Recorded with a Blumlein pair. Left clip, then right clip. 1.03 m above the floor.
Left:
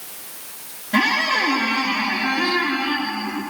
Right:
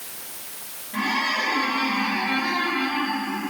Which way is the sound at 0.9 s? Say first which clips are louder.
Left 5 dB; 55° left.